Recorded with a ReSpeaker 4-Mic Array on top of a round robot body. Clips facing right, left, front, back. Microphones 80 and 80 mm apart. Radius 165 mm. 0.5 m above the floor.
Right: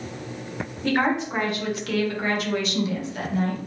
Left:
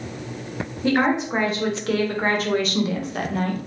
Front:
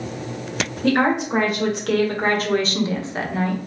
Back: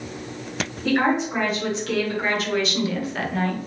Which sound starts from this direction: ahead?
A woman speaking, at 0.8 s.